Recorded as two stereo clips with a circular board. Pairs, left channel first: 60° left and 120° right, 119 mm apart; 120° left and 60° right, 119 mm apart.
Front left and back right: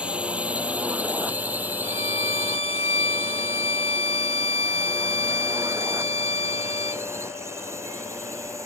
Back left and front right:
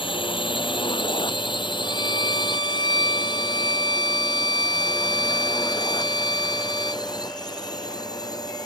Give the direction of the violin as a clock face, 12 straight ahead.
9 o'clock.